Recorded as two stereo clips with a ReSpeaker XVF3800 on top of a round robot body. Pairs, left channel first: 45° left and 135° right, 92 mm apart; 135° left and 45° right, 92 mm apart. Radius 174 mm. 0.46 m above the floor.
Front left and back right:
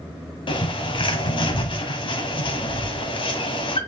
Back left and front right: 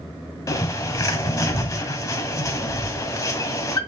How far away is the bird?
About 1.9 m.